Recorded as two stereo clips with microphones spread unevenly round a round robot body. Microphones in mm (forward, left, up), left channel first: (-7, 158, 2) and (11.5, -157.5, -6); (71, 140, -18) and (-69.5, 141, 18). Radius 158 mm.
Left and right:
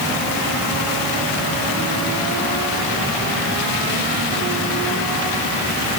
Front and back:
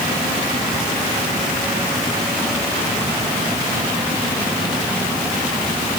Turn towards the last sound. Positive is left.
No sound to turn to.